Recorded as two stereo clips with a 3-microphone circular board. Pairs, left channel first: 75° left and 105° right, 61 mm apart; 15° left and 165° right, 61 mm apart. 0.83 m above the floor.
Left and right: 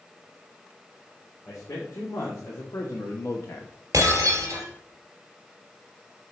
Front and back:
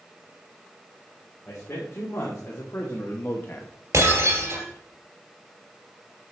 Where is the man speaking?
60° left, 2 m.